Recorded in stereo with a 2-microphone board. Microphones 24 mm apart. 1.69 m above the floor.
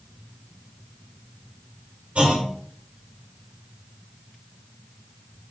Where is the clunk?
60° right (ahead or behind), 2 m.